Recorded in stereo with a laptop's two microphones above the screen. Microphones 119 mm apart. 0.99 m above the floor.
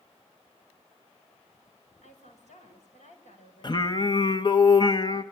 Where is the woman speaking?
75° left (ahead or behind), 6 m.